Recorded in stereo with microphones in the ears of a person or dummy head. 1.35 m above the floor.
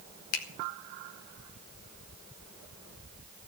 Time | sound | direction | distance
0.3 | a finger snap | 75° left (ahead or behind) | 1.2 m